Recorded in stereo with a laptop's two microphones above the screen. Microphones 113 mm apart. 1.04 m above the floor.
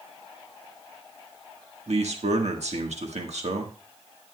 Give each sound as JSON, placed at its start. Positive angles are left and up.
{"t": 1.9, "sound": "a man speaking", "side_deg": -70, "distance_m": 1.5}